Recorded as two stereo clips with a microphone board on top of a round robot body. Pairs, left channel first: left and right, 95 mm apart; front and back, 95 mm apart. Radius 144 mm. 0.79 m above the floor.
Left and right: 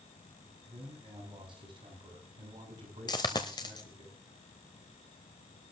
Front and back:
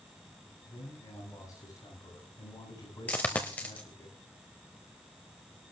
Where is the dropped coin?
70° left, 0.6 m.